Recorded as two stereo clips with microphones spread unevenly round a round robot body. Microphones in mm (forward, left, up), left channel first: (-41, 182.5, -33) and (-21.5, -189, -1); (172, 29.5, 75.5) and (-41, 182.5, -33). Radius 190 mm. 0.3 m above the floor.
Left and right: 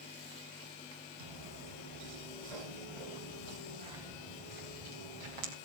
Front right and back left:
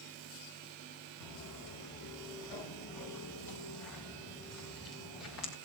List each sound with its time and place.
1.2 s footsteps: 60° right, 6 m; by 5.5 s 90° right, 7 m